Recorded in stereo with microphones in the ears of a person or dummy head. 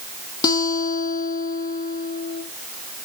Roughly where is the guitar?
Left.